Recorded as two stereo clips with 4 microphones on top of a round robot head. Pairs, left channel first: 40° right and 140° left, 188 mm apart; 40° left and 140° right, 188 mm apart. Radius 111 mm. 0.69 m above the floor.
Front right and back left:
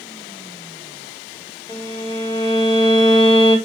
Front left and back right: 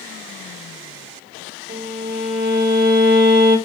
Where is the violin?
105° right, 1.3 m.